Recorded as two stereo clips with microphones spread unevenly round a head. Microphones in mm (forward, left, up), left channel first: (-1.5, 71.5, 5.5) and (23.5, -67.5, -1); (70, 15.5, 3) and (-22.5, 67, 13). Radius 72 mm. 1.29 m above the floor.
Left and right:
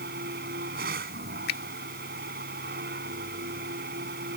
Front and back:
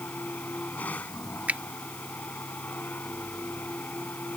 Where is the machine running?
110° right.